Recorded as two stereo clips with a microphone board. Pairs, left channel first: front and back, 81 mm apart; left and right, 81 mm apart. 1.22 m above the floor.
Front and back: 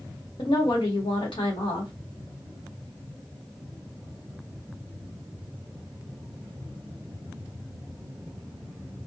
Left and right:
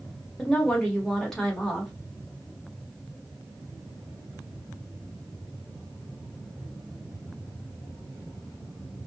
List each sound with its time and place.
0.4 s a woman speaking: 5° left, 1.0 m